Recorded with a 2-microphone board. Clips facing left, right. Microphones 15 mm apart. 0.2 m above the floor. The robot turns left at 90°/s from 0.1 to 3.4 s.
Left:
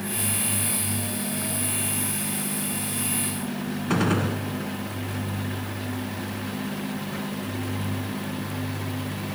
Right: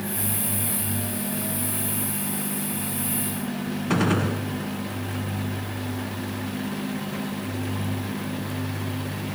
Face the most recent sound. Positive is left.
turn(degrees=-5)  # may be behind; listen again after turning